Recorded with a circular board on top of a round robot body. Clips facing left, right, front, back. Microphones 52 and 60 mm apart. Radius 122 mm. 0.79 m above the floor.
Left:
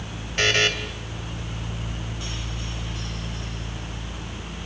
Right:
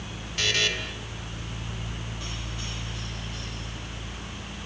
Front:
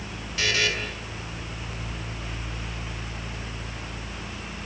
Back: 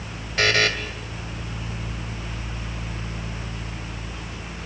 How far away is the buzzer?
About 3 m.